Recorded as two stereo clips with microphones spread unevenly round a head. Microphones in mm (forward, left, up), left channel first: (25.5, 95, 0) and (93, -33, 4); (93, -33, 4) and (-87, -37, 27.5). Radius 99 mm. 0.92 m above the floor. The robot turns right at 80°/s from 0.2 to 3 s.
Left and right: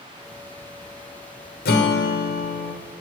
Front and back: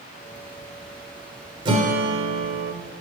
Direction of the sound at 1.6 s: 115° left.